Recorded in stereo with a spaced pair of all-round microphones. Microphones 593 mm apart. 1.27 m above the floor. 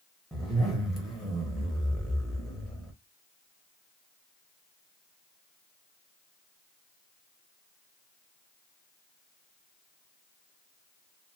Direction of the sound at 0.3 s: Centre (ahead or behind).